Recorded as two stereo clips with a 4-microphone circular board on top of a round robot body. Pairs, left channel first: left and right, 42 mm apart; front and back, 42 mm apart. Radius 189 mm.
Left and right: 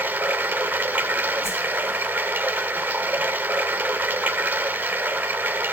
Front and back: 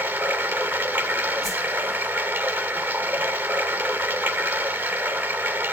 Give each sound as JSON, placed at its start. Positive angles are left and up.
{"t": 0.0, "sound": "running water", "azimuth_deg": -145, "distance_m": 1.2}
{"t": 1.4, "sound": "a whoosh", "azimuth_deg": 90, "distance_m": 3.0}